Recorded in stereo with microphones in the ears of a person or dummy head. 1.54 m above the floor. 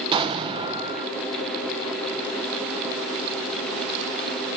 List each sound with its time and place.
0.1 s an explosion: 20° right (ahead or behind), 0.6 m